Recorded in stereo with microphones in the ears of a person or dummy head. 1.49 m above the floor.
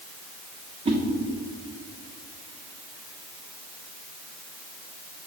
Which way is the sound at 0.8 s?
30° right (ahead or behind).